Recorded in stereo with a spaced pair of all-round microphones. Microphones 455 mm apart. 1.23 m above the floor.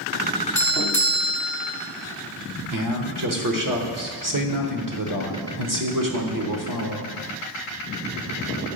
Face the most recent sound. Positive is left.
turn(degrees=-45)  # may be behind; listen again after turning